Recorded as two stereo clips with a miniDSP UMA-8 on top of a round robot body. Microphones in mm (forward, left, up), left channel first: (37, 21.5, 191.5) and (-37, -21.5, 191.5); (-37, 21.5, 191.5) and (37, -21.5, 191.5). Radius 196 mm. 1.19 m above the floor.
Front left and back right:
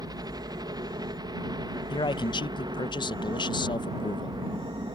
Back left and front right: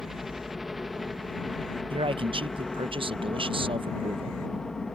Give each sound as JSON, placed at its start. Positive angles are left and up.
{"t": 0.0, "sound": "a helicopter", "azimuth_deg": -115}
{"t": 1.9, "sound": "a man speaking", "azimuth_deg": -5}